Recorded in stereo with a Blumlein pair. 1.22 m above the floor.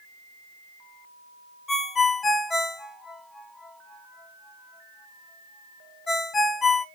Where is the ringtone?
15° left, 0.6 m.